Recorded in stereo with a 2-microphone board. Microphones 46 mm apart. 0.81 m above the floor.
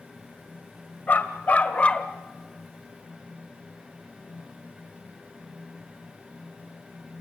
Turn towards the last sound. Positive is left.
turn(degrees=25)  # may be behind; listen again after turning